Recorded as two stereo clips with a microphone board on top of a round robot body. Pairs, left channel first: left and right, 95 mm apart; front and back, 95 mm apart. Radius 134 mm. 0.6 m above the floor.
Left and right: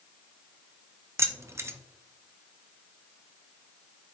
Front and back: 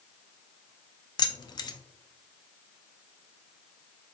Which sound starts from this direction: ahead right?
Keys jangling, at 1.2 s.